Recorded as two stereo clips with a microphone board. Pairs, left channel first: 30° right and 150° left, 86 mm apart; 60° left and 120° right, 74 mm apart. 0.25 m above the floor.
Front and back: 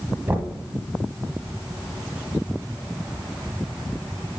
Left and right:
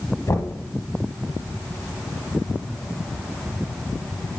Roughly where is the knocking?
Left.